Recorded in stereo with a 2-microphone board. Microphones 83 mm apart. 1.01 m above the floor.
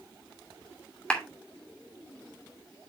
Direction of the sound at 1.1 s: 10° left (ahead or behind).